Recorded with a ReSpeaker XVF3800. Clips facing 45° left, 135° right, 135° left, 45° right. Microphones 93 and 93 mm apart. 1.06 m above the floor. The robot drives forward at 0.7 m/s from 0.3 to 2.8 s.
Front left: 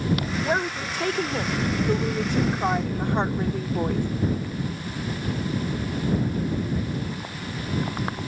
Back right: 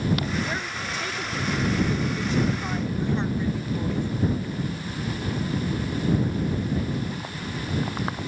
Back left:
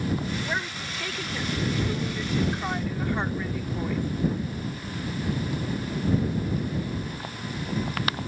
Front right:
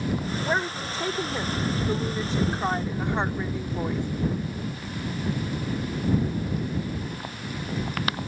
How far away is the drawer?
No drawer in this recording.